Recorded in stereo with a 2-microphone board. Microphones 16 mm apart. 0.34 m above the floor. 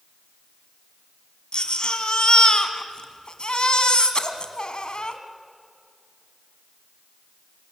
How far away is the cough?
No cough in this recording.